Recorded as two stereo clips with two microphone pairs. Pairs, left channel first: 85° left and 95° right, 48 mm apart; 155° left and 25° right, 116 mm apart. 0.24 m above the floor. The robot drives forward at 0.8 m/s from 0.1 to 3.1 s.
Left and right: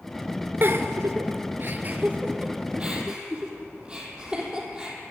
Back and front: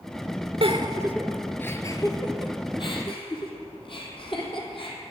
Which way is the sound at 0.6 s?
55° right.